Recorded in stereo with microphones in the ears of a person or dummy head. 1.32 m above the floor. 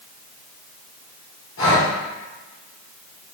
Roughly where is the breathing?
Left.